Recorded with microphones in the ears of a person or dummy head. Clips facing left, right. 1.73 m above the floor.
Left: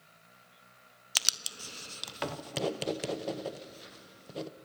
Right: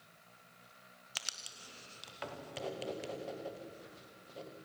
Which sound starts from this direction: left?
Writing, at 1.1 s.